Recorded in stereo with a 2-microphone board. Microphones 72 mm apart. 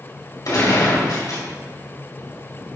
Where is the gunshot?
70° left (ahead or behind), 2.5 m.